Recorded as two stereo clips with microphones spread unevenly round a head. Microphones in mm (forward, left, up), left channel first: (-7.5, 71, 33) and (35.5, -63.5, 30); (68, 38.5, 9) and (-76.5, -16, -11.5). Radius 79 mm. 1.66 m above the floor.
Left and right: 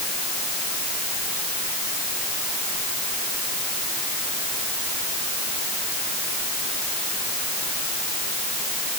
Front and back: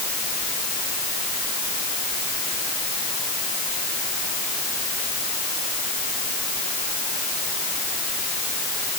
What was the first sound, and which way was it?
Only background noise.